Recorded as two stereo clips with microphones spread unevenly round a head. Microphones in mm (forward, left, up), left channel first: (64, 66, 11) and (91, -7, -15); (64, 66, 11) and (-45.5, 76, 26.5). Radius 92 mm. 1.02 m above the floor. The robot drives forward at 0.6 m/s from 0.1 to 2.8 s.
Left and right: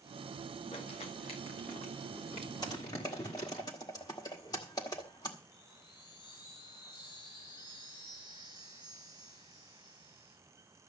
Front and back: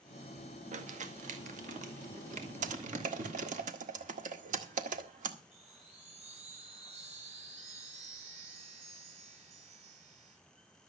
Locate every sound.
0.7 s crumpling: 165° left, 1.9 m; by 3.6 s 170° left, 3 m
2.6 s typing on a keyboard: 175° left, 1.5 m
5.5 s a chime: 155° left, 8 m